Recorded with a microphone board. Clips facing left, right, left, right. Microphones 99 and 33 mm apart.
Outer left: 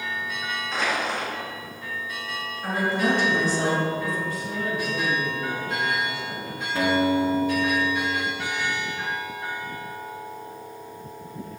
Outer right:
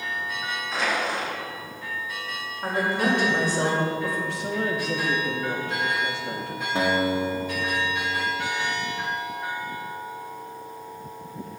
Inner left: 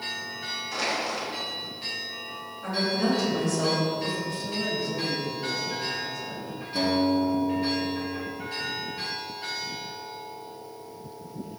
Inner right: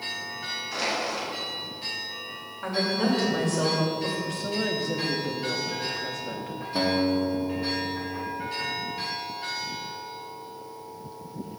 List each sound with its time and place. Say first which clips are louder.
0.7 s crushing: even, even; 5° right (ahead or behind), 2.5 m
2.6 s a woman speaking: even, even; 60° right (ahead or behind), 2.5 m
4.3 s a woman speaking: outer right 2 dB, inner right 1 dB; 80° right, 1.2 m
6.8 s a guitar: outer left 2 dB, inner left 1 dB; 25° right (ahead or behind), 0.9 m